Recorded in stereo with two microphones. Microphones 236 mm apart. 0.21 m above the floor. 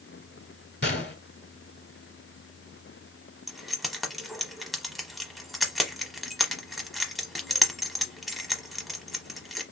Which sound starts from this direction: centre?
Keys jangling, at 3.5 s.